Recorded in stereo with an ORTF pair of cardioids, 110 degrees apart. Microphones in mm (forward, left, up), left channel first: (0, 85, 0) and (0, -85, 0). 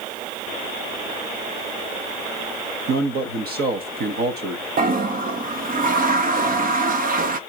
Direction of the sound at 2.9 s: 65° right.